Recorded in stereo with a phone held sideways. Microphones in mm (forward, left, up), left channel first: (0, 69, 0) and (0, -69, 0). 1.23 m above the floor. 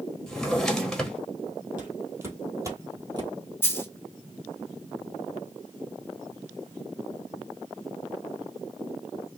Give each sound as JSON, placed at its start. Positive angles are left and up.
{"t": 0.3, "sound": "a drawer", "side_deg": 5, "distance_m": 1.1}
{"t": 1.8, "sound": "footsteps", "side_deg": -15, "distance_m": 1.9}
{"t": 3.6, "sound": "a dropped coin", "side_deg": 15, "distance_m": 1.0}